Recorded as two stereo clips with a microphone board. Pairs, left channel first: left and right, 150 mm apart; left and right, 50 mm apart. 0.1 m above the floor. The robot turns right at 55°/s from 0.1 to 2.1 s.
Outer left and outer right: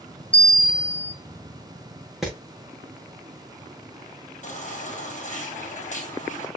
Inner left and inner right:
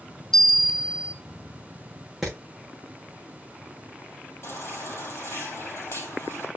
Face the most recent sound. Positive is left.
turn(degrees=55)  # may be behind; listen again after turning